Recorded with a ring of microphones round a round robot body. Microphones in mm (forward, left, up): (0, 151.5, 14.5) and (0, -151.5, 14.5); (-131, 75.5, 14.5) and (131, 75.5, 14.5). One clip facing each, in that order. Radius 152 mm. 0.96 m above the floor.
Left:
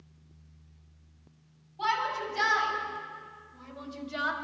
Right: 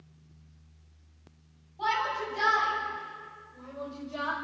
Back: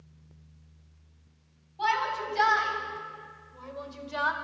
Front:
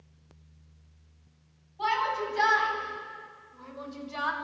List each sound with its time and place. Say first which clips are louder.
1.8 s a shout: right 1 dB, front 2 dB; 155° left, 8 m; by 4.3 s 135° left, 4.5 m